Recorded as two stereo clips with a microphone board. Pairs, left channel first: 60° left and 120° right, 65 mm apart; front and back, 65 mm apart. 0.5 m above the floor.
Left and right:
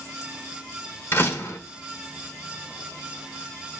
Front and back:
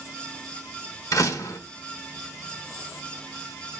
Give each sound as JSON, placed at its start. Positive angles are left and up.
{"t": 1.1, "sound": "a door slam", "azimuth_deg": 15, "distance_m": 1.3}